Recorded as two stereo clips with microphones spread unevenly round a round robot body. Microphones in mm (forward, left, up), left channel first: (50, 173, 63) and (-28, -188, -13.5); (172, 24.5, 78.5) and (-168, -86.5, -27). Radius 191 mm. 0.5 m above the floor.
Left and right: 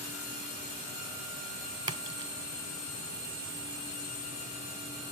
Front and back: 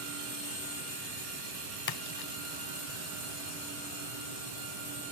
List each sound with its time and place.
1.9 s a splash: 25° right